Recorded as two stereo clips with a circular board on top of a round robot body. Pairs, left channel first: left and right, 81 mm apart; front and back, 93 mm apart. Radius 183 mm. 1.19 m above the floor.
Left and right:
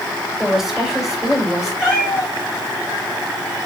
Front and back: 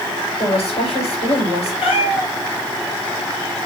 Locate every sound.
0.4 s a woman speaking: 5° right, 5.5 m
1.8 s a cat meowing: 10° right, 3.5 m